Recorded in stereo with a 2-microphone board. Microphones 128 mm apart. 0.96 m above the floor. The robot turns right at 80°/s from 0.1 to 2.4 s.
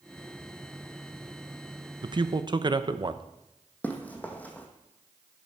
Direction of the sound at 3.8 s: 10° left (ahead or behind).